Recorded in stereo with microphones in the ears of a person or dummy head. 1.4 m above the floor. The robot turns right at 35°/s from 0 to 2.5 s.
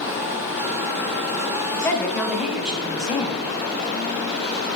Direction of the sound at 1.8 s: 20° left (ahead or behind).